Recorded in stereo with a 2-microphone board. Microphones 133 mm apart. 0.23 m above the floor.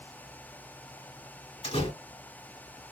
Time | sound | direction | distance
1.6 | a door slam | 50° left (ahead or behind) | 2 m